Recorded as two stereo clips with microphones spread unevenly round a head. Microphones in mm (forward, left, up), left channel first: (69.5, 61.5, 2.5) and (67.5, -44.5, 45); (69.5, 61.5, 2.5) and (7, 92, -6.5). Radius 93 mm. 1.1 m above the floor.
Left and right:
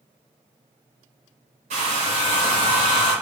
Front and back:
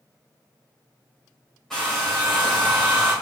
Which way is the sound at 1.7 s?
110° right.